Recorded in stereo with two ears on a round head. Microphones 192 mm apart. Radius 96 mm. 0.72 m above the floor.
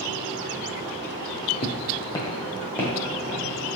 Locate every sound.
1.6 s footsteps: 30° left (ahead or behind), 0.9 m; by 3.8 s centre (ahead or behind), 2.5 m